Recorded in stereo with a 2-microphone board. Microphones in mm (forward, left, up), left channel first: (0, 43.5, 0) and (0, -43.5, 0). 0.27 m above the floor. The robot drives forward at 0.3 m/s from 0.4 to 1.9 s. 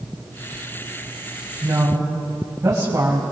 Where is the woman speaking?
35° right (ahead or behind), 1.9 m; by 3.2 s 40° right (ahead or behind), 1.9 m.